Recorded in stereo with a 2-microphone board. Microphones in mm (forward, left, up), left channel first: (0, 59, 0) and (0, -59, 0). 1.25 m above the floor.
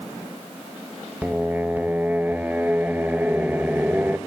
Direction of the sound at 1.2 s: 15° right (ahead or behind).